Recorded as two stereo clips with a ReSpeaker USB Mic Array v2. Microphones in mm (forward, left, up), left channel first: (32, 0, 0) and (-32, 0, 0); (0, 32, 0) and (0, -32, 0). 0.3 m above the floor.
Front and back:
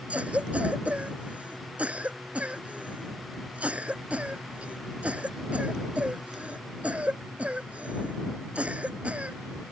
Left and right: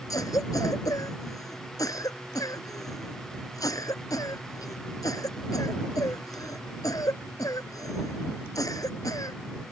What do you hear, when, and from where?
0.1 s a cough: 110° left